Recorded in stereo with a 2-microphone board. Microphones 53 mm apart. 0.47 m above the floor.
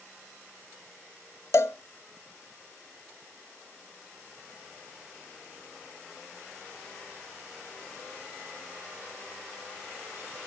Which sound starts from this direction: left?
A cowbell, at 1.5 s.